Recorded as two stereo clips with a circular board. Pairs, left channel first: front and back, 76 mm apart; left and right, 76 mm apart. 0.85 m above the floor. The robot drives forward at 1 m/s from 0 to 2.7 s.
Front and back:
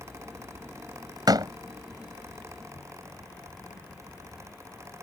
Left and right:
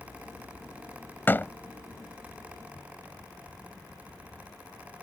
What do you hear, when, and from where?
1.3 s a door slam: 155° left